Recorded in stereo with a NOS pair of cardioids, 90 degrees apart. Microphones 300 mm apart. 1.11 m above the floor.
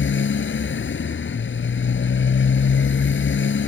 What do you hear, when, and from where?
0.0 s a motorcycle: 40° left